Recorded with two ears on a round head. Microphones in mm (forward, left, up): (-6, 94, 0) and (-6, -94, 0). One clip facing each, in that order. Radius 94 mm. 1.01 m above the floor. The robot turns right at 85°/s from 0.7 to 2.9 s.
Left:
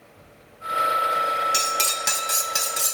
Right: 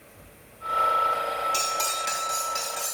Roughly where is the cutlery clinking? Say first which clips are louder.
Left 2 dB; ahead.